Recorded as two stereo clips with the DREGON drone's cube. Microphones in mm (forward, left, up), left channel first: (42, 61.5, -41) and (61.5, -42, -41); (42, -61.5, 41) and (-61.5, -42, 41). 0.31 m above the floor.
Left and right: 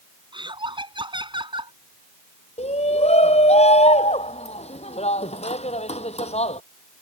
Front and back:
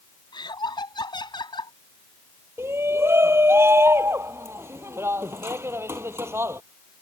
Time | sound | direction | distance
0.3 | laughter | 45° right | ?
2.6 | a shout | 105° left | ?